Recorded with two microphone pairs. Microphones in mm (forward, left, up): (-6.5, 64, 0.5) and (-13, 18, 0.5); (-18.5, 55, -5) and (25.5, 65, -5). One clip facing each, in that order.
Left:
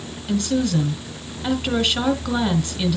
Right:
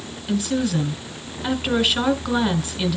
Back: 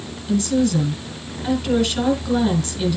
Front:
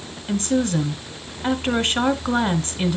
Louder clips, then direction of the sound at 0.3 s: Left 1 dB, back 2 dB; 10° right.